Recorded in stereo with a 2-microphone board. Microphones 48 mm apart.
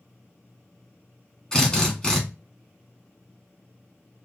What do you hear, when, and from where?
1.5 s a drill: 15° left (ahead or behind), 2 m